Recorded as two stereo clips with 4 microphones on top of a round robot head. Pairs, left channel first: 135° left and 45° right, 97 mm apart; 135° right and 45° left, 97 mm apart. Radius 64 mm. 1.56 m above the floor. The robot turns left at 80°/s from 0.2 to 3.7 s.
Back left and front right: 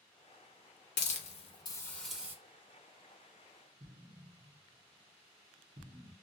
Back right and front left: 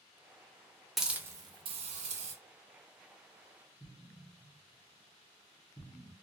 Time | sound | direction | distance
1.0 | a hiss | 135° left | 0.8 m
3.8 | an explosion | 80° right | 0.9 m